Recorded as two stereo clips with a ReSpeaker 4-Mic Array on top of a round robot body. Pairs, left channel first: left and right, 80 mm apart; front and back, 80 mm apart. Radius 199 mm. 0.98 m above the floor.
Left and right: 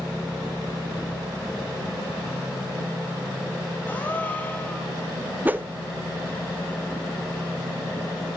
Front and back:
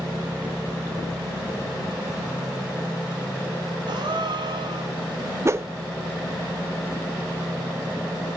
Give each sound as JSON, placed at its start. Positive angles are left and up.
{"t": 3.9, "sound": "a gasp", "azimuth_deg": 160, "distance_m": 2.5}
{"t": 5.5, "sound": "a whoosh", "azimuth_deg": -145, "distance_m": 1.0}